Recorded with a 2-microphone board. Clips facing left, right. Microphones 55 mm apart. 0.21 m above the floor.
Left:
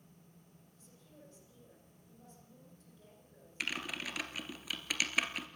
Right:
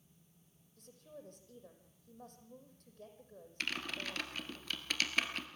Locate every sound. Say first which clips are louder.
0.8 s a woman speaking: right 7 dB; 60° right (ahead or behind), 7 m
3.6 s typing on a keyboard: left 1 dB; 10° left (ahead or behind), 2 m